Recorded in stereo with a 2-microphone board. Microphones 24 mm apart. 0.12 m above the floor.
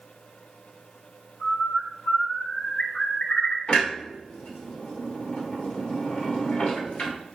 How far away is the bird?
About 0.7 m.